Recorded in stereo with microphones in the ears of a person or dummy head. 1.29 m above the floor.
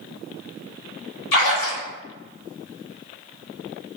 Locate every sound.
1.3 s a splash: 80° left, 1.2 m